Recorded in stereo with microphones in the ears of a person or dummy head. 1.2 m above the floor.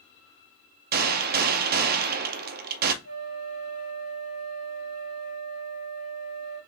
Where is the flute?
65° left (ahead or behind), 1.7 m.